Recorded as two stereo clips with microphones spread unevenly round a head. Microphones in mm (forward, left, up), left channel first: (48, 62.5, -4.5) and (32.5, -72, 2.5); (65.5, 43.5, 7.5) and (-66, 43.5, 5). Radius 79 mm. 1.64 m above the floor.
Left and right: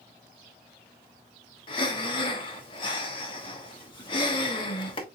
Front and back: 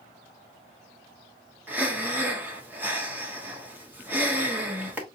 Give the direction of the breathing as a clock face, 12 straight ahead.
8 o'clock.